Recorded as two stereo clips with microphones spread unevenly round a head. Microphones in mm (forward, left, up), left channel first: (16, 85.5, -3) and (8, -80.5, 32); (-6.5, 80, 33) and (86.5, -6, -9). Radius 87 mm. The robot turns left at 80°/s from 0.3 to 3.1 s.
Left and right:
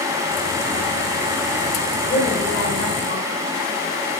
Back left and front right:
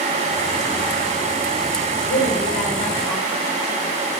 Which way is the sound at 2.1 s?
150° left.